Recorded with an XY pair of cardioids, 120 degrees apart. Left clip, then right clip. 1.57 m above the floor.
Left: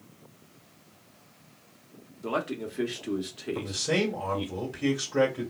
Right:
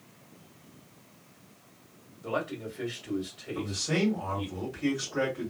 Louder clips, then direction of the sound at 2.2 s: Left 2 dB; 65° left.